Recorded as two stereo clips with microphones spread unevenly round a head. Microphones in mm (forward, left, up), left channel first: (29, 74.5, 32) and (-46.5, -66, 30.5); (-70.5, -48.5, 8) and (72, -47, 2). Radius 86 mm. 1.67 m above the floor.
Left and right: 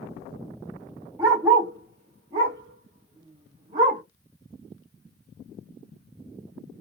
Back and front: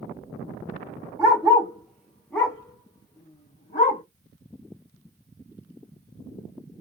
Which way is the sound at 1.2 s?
50° right.